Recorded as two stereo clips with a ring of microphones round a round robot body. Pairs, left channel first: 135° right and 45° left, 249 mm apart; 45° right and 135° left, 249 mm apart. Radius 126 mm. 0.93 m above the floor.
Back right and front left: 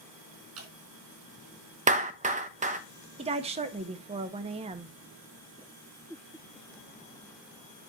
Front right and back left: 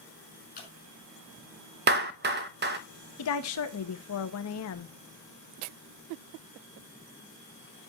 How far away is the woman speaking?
About 0.9 m.